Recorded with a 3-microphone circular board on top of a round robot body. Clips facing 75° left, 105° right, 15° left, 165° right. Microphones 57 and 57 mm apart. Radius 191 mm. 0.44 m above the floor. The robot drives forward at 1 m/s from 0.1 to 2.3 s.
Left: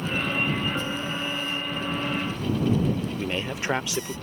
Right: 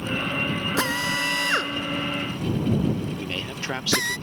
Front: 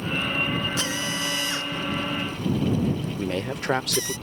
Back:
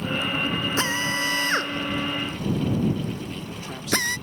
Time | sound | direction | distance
0.8 | a drill | 110° right | ?
3.2 | a man speaking | 5° left | ?